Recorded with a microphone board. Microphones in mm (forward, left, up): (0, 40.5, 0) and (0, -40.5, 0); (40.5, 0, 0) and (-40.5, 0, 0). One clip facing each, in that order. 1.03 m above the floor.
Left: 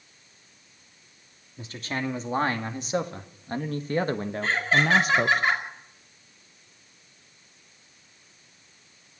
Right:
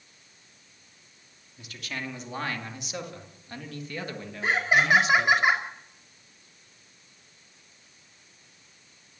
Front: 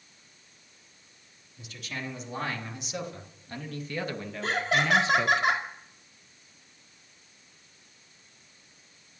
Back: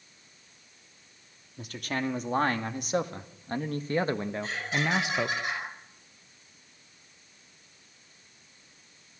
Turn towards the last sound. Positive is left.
turn(degrees=-15)